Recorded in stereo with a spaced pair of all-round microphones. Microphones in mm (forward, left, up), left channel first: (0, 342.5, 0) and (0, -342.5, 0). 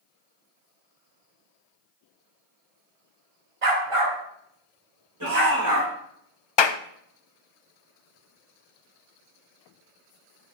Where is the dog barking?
50° right (ahead or behind), 1.8 m; by 5.9 s 30° right (ahead or behind), 4.5 m.